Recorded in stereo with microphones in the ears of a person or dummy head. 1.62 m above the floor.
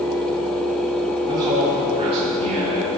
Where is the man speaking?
25° right (ahead or behind), 4.5 m; by 3.0 s 40° right (ahead or behind), 5 m.